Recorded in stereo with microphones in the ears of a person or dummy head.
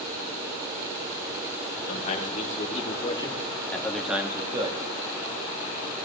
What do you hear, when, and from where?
1.9 s a man speaking: 45° left (ahead or behind), 2.5 m; by 4.9 s 25° right (ahead or behind), 1.3 m